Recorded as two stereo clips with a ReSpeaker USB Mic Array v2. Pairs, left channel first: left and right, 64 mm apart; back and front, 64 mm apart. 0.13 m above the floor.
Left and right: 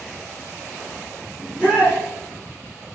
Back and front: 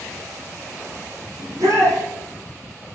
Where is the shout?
10° right, 3.5 m.